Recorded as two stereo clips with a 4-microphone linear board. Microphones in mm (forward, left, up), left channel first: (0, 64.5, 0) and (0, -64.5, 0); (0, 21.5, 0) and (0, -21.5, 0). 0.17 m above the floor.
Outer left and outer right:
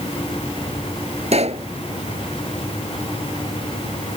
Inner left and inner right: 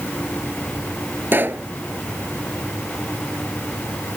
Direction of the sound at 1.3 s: 55° right (ahead or behind).